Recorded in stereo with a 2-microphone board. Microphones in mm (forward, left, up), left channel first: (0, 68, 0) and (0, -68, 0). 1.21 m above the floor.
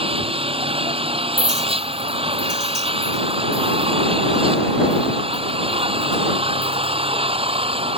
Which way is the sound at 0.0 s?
45° right (ahead or behind).